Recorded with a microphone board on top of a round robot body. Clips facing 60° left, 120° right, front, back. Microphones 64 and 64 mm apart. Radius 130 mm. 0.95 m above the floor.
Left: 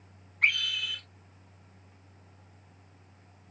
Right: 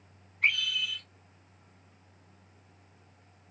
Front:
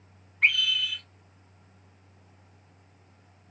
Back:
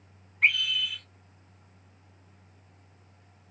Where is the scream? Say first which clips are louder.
Left 1 dB, even; 90° left, 3.5 m.